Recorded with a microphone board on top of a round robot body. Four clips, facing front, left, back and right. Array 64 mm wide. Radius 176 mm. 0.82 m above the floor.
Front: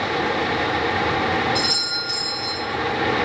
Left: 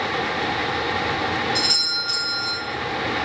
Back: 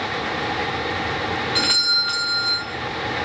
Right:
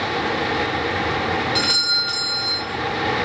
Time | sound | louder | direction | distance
1.6 | a doorbell | right 3 dB, back 1 dB | 170° right | 2.5 m